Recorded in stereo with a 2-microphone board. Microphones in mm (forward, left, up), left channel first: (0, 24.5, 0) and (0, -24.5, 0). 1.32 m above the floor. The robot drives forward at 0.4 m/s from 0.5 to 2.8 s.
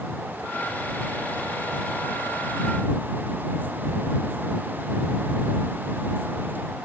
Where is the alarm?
I don't hear an alarm.